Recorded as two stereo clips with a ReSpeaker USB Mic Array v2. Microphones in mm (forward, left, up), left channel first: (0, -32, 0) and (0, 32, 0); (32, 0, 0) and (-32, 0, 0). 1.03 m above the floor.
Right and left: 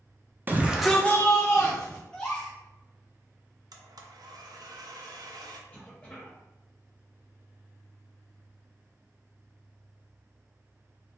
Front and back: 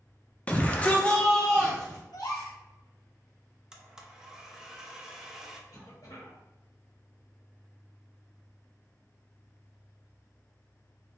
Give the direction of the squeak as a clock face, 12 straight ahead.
I don't hear a squeak.